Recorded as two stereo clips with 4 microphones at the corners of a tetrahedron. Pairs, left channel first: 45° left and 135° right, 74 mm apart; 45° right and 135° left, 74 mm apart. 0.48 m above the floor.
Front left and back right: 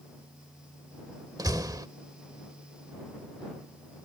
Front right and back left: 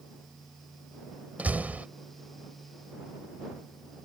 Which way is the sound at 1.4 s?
160° right.